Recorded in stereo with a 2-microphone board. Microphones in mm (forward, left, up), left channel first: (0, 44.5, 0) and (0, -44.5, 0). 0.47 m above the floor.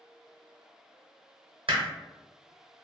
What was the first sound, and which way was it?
Hammering, 75° right (ahead or behind).